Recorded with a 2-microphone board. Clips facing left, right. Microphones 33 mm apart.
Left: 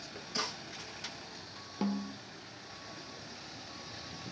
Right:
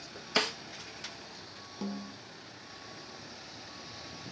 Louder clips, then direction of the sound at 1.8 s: Left 4 dB; 30° left (ahead or behind).